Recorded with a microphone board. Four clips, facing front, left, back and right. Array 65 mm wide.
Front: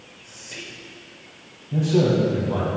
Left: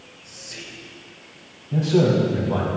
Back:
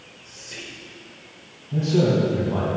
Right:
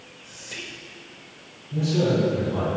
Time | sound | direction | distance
0.2 | whispering | 75° right | 1.0 m
1.7 | a man speaking | 70° left | 2.5 m